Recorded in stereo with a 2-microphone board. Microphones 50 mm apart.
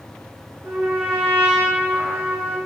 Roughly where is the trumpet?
Right.